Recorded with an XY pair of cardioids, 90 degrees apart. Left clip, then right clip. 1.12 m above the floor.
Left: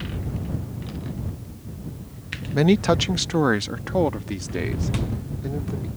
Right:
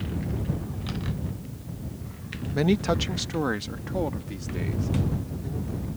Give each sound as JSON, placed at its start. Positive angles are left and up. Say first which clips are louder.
{"t": 2.5, "sound": "a man speaking", "louder": "left 5 dB", "azimuth_deg": 35}